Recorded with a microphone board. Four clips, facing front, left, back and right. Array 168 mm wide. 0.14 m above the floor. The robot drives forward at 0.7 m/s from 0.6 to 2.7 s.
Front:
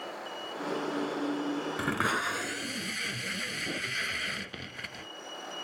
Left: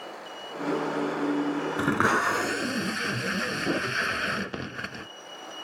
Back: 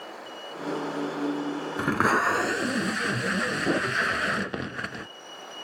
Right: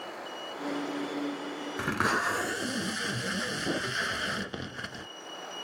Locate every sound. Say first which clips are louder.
1.8 s tape being pulled: left 4 dB, back 10 dB; 140° left; by 5.1 s 160° left